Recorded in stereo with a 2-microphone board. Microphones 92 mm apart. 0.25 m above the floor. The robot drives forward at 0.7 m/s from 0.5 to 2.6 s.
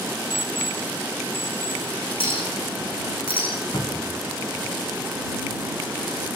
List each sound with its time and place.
0.3 s an alarm clock: 30° right (ahead or behind), 8 m; by 1.8 s 25° right (ahead or behind), 9 m
2.2 s a clink: 80° left, 9 m; by 3.5 s 85° left, 9 m
3.7 s a cupboard door: 40° left (ahead or behind), 6.5 m